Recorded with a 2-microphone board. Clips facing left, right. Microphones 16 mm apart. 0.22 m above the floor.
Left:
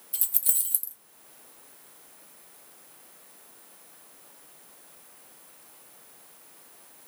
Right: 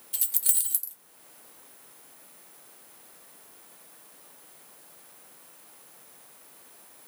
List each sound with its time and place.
0.1 s keys jangling: 25° right (ahead or behind), 0.8 m